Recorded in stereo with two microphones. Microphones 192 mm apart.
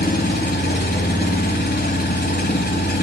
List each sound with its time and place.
0.0 s an engine running: 60° left (ahead or behind), 1.2 m